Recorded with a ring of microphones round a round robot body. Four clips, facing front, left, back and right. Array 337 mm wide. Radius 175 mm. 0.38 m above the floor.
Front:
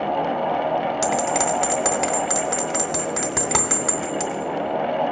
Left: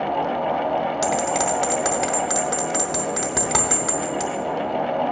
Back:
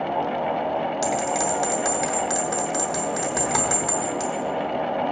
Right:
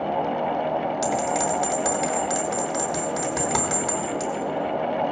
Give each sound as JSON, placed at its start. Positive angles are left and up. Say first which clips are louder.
{"t": 1.0, "sound": "a bell", "louder": "left 2 dB, front 2 dB", "azimuth_deg": 40, "distance_m": 1.4}